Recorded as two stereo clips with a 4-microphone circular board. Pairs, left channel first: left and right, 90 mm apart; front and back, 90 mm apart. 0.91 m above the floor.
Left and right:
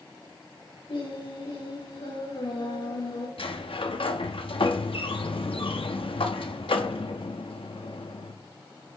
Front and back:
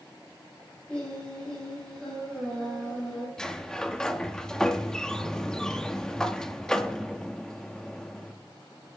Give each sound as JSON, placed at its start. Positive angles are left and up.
{"t": 0.9, "sound": "singing", "azimuth_deg": 80, "distance_m": 9.5}
{"t": 3.4, "sound": "a sliding door", "azimuth_deg": 80, "distance_m": 1.2}